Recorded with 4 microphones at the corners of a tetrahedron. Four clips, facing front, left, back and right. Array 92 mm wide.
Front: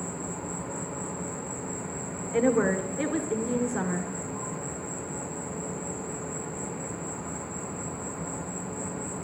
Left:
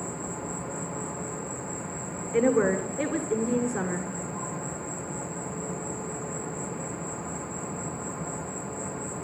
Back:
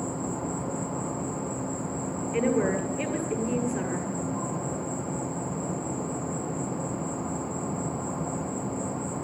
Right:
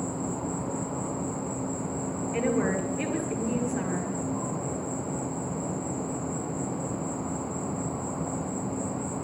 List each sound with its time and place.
0.0 s an insect: 140° right, 0.8 m
2.3 s a woman speaking: 50° left, 1.4 m